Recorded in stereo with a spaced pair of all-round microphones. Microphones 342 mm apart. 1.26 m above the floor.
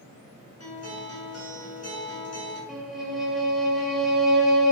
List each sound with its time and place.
0.6 s a guitar: 45° left (ahead or behind), 1.0 m
2.7 s a violin: centre (ahead or behind), 0.5 m